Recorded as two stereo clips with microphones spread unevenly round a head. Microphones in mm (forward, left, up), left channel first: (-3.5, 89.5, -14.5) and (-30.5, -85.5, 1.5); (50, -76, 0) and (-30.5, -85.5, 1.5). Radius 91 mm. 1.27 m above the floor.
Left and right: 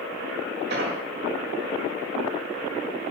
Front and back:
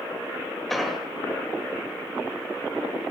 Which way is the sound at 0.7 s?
80° right.